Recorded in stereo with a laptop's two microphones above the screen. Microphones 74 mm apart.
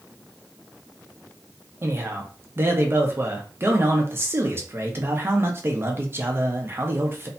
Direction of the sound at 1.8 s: 30° right (ahead or behind).